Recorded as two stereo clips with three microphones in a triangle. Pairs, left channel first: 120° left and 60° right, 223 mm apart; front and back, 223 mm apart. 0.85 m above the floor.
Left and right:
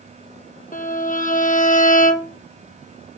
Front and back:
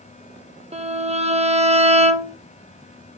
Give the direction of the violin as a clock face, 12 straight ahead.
7 o'clock.